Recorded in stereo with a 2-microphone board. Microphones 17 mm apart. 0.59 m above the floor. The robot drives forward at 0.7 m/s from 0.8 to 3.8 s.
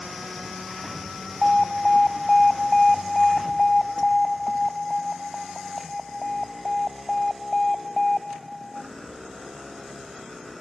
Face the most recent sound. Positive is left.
turn(degrees=25)  # may be behind; listen again after turning